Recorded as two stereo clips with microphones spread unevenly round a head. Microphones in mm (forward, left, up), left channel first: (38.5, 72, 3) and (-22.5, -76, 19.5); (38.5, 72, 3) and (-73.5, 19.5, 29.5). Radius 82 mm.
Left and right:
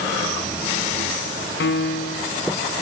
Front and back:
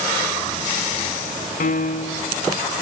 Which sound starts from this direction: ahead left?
A piano, at 1.6 s.